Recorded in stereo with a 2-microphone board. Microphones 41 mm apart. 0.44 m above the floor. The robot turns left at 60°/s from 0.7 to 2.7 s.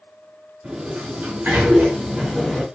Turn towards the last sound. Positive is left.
turn(degrees=165)